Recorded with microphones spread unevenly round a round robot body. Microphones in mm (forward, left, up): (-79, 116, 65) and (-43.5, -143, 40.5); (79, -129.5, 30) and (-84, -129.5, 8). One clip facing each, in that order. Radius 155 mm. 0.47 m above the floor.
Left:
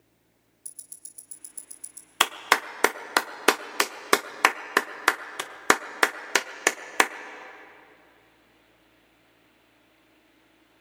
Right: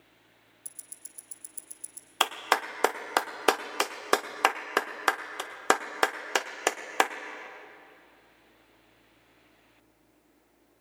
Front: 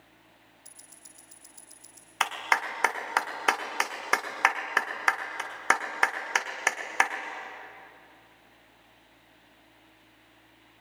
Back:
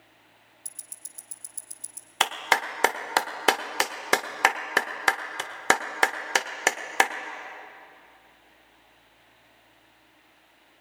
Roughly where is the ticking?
Behind.